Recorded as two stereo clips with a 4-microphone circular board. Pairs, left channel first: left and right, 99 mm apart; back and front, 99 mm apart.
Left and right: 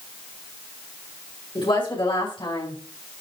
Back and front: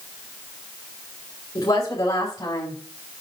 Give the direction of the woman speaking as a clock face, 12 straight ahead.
8 o'clock.